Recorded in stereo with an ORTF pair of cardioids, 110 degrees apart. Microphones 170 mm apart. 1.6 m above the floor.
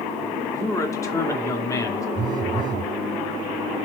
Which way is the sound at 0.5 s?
20° left.